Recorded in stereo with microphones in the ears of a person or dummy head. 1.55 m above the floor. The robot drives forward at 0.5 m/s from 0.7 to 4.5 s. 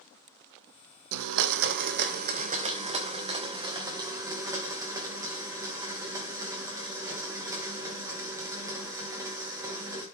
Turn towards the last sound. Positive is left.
turn(degrees=-20)  # may be behind; listen again after turning